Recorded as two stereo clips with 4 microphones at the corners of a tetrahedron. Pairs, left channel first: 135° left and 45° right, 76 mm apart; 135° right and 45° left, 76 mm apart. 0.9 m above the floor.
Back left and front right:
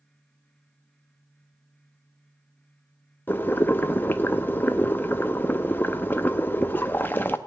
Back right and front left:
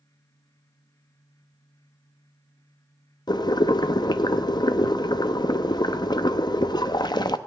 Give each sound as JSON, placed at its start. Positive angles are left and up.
{"t": 3.3, "sound": "boiling", "azimuth_deg": -160, "distance_m": 0.6}